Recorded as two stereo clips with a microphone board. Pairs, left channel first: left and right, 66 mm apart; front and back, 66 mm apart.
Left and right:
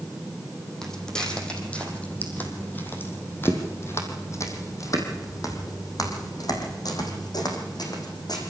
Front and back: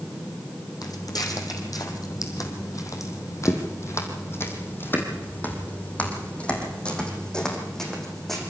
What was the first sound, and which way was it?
Footsteps, 10° left.